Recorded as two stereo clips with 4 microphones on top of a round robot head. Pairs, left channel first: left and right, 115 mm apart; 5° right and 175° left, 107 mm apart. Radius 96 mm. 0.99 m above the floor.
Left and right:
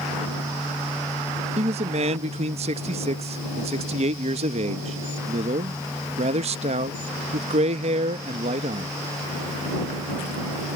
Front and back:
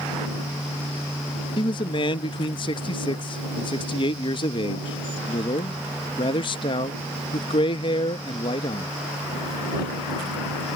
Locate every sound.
1.6 s a man speaking: 55° right